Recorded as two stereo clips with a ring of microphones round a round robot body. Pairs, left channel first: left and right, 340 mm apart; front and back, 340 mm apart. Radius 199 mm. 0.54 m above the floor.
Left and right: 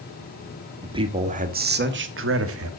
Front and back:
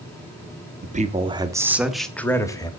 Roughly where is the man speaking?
Behind right.